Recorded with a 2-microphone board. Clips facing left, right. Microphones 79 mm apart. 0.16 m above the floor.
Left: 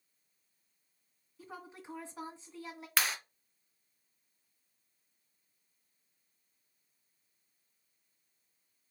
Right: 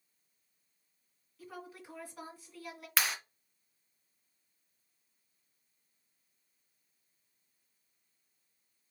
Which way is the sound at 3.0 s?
Centre (ahead or behind).